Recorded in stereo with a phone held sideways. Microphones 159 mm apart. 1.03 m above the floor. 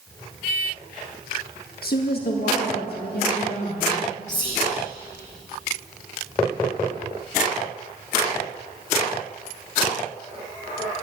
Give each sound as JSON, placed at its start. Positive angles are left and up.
{"t": 1.8, "sound": "a woman speaking", "side_deg": 70, "distance_m": 1.2}
{"t": 4.3, "sound": "whispering", "side_deg": 45, "distance_m": 1.7}